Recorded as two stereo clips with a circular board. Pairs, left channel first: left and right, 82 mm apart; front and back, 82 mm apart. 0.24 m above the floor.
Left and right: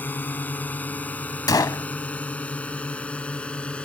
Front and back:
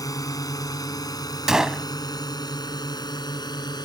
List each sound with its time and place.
0.0 s a drone: 30° left; by 3.9 s 15° left
1.5 s a gunshot: 100° left